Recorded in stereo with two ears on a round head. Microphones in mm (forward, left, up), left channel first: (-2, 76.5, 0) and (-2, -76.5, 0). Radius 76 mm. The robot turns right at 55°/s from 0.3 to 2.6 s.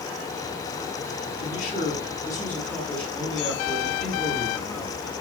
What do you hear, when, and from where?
1.4 s a man speaking: 110° left, 7.5 m; by 5.1 s 175° left, 7.5 m